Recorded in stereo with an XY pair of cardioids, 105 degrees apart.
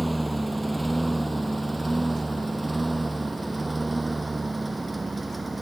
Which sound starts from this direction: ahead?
A lawn mower, at 0.0 s.